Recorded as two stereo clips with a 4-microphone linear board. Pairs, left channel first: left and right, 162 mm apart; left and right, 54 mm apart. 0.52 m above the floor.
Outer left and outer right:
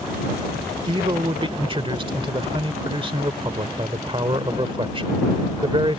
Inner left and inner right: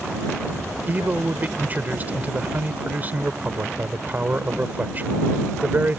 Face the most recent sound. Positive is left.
turn(degrees=-35)  # may be behind; listen again after turning